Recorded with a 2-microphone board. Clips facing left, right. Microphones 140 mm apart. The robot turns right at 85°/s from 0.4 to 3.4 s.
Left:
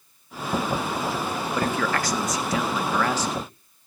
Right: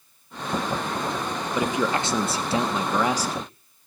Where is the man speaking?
10° right (ahead or behind), 1.1 m; by 3.5 s 5° right (ahead or behind), 1.1 m.